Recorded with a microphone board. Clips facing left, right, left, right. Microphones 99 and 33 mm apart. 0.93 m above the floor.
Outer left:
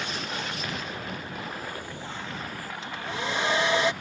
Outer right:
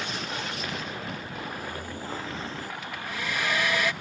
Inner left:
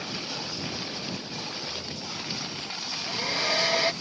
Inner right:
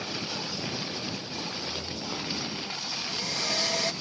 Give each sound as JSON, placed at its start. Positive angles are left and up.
{"t": 1.4, "sound": "footsteps", "side_deg": -60}
{"t": 2.8, "sound": "a hair dryer", "side_deg": 30}